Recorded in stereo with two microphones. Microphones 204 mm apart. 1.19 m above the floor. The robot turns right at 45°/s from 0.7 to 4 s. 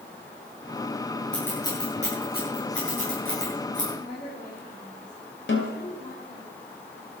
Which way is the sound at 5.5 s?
65° left (ahead or behind).